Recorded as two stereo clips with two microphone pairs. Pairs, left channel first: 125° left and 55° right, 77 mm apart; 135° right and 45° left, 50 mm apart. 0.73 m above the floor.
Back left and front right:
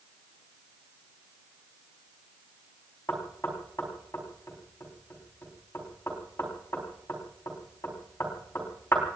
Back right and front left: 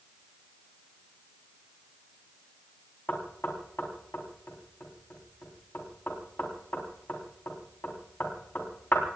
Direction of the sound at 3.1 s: Straight behind.